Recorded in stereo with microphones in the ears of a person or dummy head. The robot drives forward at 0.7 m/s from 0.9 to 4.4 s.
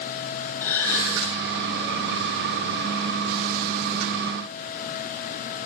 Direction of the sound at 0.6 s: 15° left (ahead or behind).